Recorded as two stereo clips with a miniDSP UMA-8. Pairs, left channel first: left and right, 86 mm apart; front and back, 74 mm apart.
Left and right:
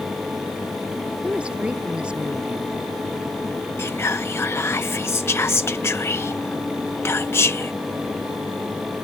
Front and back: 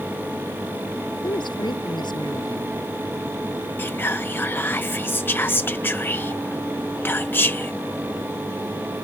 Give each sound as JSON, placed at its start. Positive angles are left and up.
{"t": 1.2, "sound": "a woman speaking", "azimuth_deg": -15}
{"t": 3.8, "sound": "whispering", "azimuth_deg": 50}